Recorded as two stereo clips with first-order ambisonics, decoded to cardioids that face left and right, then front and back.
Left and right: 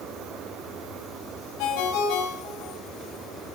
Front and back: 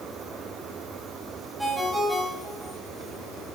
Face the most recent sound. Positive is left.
turn(degrees=90)